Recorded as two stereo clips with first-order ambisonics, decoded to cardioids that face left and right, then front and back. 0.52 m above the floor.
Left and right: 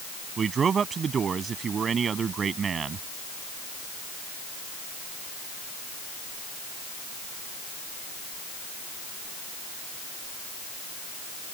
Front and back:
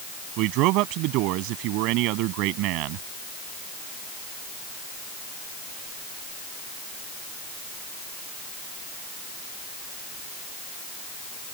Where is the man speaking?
155° right.